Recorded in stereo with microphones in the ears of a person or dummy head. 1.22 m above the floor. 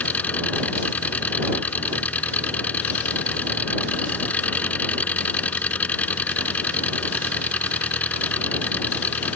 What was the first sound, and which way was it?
An engine running, centre (ahead or behind).